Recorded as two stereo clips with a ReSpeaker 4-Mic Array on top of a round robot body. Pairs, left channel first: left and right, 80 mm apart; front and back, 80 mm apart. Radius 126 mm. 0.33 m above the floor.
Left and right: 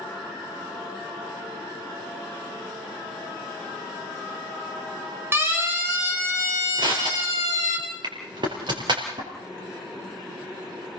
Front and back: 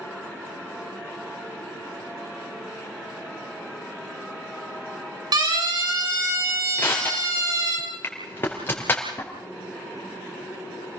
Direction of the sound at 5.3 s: 150° right.